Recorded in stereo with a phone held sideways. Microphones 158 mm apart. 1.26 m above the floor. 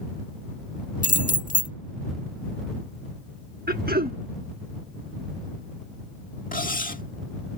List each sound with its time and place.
1.0 s keys jangling: 55° left (ahead or behind)
3.7 s throat clearing: 75° right (ahead or behind)
6.5 s cutlery clinking: 60° left (ahead or behind)